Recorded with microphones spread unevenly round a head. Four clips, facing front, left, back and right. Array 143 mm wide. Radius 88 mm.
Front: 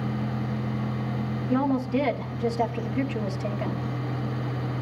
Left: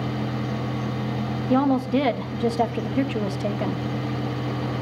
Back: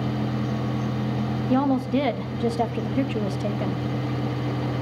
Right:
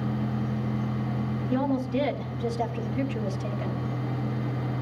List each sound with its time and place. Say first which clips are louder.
1.5 s a woman speaking: left 7 dB, back 2 dB; 85° left, 1.9 m